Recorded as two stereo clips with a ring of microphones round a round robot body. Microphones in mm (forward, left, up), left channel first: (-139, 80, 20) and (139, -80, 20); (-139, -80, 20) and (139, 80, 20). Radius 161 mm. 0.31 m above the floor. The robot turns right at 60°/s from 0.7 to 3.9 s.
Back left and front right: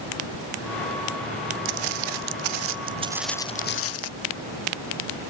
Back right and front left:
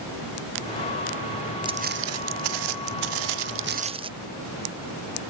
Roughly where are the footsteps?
Ahead right.